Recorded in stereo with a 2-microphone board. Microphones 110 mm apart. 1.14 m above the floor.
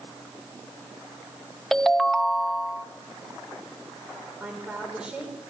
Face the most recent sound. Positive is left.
turn(degrees=-10)  # may be behind; listen again after turning